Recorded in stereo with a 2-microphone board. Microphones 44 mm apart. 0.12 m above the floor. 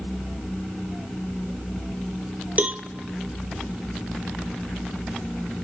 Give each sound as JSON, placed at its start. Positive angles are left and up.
{"t": 2.6, "sound": "a cowbell", "side_deg": -40, "distance_m": 0.5}